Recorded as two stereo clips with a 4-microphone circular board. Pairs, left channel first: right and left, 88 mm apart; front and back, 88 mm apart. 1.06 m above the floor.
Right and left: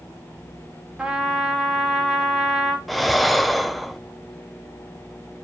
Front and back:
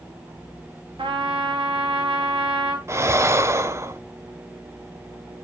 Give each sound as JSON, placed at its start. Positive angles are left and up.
{"t": 1.0, "sound": "a trumpet", "azimuth_deg": 170, "distance_m": 2.0}
{"t": 2.9, "sound": "breathing", "azimuth_deg": 180, "distance_m": 0.6}